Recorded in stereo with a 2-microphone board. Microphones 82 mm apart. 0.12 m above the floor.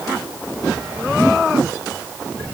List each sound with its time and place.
Only background noise.